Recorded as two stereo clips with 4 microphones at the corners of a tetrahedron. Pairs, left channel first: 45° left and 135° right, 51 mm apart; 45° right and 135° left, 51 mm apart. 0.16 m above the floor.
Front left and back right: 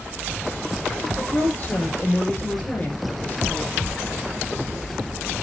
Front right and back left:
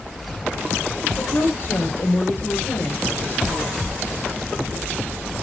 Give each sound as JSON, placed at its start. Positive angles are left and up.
{"t": 1.2, "sound": "a woman speaking", "azimuth_deg": -10, "distance_m": 6.0}